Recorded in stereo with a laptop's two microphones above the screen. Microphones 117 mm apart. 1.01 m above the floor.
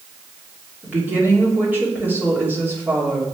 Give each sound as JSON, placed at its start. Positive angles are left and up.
{"t": 0.8, "sound": "a woman speaking", "side_deg": -15, "distance_m": 3.0}